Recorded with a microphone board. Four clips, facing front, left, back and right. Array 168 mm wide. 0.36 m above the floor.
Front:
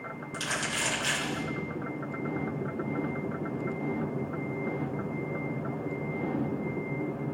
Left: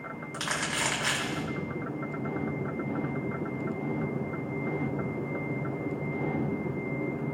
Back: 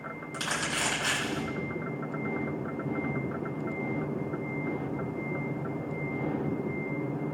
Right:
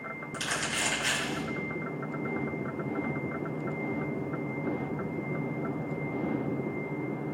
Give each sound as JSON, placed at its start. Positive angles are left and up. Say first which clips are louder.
{"t": 0.3, "sound": "crumpling", "louder": "left 1 dB, back 1 dB", "azimuth_deg": 110, "distance_m": 3.5}